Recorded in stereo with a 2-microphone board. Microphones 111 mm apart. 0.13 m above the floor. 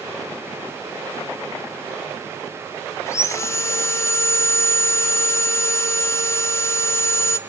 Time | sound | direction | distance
3.1 | sawing | 25° left (ahead or behind) | 0.6 m